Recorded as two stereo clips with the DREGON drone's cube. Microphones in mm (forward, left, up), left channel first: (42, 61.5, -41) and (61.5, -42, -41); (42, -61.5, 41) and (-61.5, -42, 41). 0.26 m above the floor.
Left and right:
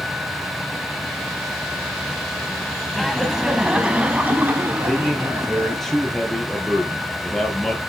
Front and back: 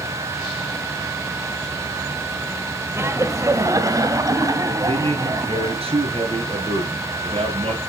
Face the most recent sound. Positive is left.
turn(degrees=-170)